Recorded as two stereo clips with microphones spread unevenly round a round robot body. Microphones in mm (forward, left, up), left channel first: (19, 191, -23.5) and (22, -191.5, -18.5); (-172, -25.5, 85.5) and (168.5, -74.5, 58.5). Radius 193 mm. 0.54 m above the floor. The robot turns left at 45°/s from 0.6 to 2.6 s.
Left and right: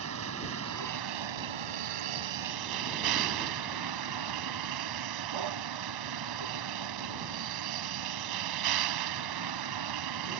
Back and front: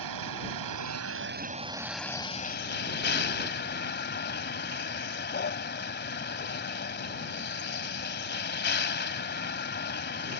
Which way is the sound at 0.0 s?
35° right.